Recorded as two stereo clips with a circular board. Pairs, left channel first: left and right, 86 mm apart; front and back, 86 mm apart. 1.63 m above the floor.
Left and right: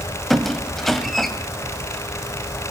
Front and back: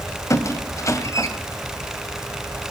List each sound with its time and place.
0.3 s a squeak: 5° left, 1.7 m